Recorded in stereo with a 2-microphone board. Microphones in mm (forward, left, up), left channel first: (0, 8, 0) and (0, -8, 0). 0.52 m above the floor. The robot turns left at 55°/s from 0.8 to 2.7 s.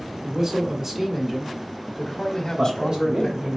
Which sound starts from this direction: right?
A man speaking, at 2.6 s.